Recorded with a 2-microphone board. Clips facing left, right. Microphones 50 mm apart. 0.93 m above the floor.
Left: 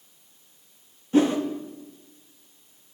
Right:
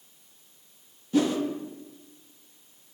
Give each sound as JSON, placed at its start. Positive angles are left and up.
{"t": 1.1, "sound": "a whoosh", "side_deg": 35, "distance_m": 1.0}